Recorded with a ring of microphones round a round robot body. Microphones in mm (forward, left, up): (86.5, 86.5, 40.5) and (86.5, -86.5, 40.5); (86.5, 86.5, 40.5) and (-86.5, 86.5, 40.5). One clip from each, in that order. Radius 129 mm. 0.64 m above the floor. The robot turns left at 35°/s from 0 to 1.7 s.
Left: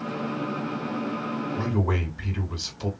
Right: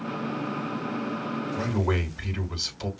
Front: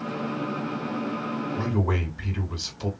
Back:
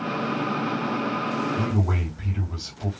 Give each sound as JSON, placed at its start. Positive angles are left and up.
{"t": 1.6, "sound": "a man speaking", "azimuth_deg": -50, "distance_m": 3.5}